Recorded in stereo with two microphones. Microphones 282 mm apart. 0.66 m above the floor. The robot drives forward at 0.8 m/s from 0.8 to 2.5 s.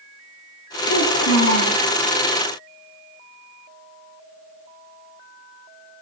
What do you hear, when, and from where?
0.9 s a child speaking: 85° left, 7.5 m; by 1.8 s 80° left, 7.5 m